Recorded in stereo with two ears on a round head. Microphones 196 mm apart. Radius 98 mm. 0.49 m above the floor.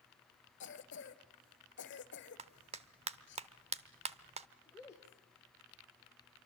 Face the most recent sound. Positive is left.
turn(degrees=15)  # may be behind; listen again after turning